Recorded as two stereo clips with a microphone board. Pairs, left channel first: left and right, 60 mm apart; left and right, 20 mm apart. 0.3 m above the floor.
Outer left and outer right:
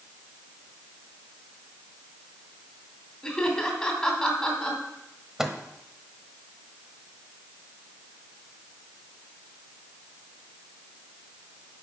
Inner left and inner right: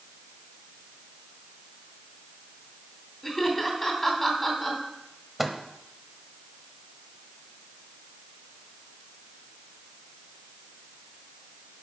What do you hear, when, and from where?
3.2 s laughter: 10° left (ahead or behind), 3 m
5.4 s a microwave: 10° right (ahead or behind), 1.0 m